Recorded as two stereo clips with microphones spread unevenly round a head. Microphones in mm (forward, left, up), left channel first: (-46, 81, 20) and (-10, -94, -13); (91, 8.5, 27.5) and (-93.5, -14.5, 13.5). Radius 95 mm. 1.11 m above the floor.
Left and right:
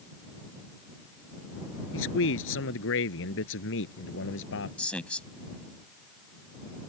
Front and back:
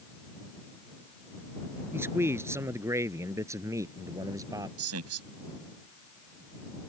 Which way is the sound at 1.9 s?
110° left.